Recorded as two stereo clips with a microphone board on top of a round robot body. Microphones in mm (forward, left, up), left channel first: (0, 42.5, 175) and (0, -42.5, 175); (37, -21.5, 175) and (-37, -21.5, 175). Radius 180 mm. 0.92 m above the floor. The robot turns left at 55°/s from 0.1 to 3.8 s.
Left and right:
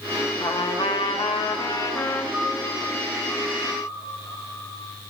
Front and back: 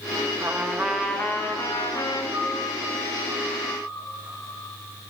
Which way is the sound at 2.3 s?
165° right.